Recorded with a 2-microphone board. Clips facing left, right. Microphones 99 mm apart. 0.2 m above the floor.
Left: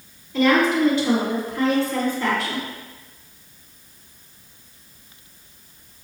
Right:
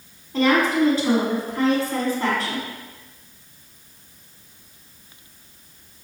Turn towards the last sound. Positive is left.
turn(degrees=-40)  # may be behind; listen again after turning